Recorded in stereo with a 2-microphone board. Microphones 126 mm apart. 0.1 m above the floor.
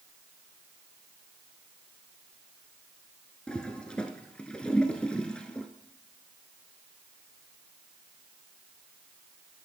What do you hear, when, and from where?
3.5 s a toilet flushing: 10° left (ahead or behind), 0.8 m